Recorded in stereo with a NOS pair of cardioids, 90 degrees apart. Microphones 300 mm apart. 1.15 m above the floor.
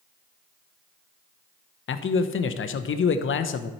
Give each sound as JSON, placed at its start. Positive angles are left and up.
{"t": 1.9, "sound": "a man speaking", "azimuth_deg": 45, "distance_m": 0.8}